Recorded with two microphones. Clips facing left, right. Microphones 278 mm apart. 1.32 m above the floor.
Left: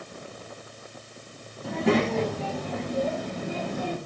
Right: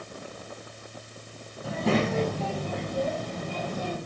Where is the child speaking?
Centre (ahead or behind), 5.5 m; by 4.0 s 10° left (ahead or behind), 4.5 m.